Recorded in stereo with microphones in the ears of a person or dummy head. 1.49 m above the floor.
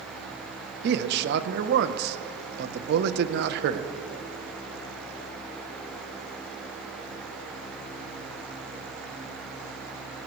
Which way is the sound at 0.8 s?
65° right (ahead or behind).